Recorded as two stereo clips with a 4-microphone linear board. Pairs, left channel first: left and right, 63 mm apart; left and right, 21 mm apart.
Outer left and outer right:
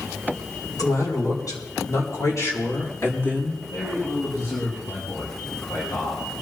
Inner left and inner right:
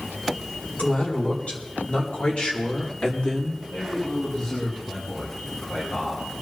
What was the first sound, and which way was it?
A man speaking, 75° left (ahead or behind).